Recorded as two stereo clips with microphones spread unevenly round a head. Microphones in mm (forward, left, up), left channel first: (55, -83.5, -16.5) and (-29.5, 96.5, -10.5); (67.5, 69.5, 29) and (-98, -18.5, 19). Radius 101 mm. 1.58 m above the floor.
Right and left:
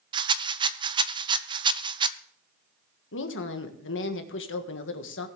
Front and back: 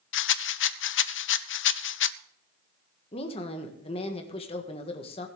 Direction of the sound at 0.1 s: 45° left.